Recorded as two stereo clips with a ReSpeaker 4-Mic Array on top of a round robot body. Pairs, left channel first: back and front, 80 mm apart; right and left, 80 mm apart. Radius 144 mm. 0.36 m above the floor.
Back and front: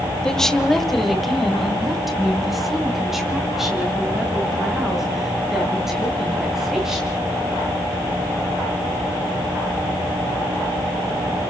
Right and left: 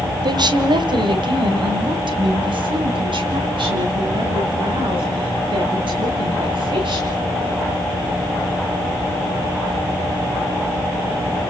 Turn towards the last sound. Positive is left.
turn(degrees=85)